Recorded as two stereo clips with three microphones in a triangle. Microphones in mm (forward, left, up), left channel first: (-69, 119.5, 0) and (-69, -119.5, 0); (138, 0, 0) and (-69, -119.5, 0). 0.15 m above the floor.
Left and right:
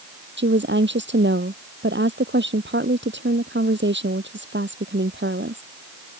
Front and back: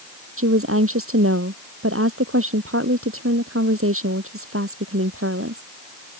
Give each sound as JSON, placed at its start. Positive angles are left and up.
{"t": 0.4, "sound": "a woman speaking", "azimuth_deg": -130}